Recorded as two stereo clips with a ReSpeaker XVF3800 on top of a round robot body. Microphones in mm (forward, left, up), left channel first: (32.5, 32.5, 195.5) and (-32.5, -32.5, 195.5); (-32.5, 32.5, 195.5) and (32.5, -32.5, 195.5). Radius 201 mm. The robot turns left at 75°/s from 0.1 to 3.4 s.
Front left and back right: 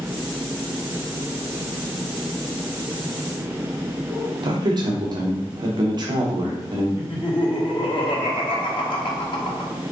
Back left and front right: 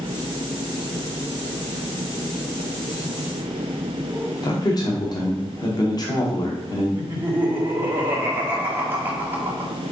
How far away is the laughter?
About 1.6 m.